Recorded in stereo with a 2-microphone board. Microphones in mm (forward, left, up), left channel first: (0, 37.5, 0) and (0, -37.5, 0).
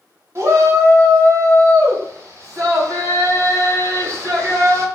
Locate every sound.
0.3 s a shout: 45° right (ahead or behind), 1.0 m